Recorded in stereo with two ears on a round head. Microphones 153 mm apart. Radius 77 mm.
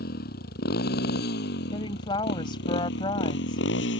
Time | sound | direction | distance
0.0 | a motorcycle | 55° left (ahead or behind) | ?
1.7 | a woman speaking | 30° left (ahead or behind) | ?